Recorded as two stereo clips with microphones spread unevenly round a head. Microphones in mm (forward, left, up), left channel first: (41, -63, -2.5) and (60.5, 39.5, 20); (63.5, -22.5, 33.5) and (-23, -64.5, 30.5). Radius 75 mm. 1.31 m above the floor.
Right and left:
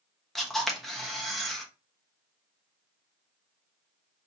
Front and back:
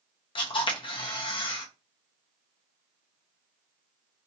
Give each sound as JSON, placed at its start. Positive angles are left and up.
{"t": 0.3, "sound": "a camera shutter", "azimuth_deg": -10, "distance_m": 1.1}